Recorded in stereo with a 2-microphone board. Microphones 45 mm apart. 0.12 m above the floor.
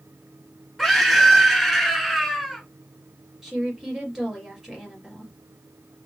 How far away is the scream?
About 1.1 m.